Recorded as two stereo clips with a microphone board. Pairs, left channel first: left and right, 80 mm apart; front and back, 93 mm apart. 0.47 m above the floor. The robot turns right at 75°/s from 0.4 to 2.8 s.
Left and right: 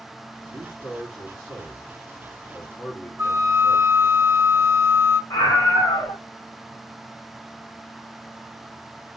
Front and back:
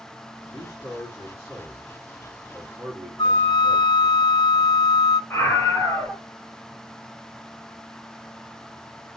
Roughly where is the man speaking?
Ahead right.